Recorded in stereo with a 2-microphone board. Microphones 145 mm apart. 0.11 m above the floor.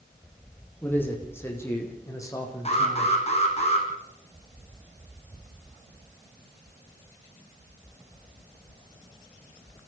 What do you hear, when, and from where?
0.8 s a man speaking: 15° left (ahead or behind), 5.5 m; by 3.2 s 25° left (ahead or behind), 5.5 m
2.6 s an alarm: 45° left (ahead or behind), 4 m